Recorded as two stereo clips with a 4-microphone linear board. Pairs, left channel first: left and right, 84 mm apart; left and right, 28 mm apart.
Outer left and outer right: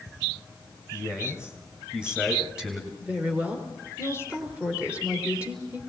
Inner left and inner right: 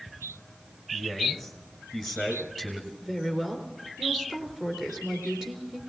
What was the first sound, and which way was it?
A man speaking, 10° right (ahead or behind).